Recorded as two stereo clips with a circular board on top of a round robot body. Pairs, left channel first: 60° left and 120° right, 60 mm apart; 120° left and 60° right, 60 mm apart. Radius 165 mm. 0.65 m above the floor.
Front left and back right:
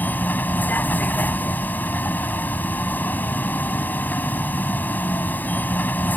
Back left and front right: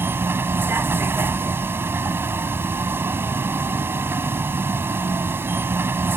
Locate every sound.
0.0 s a vehicle: straight ahead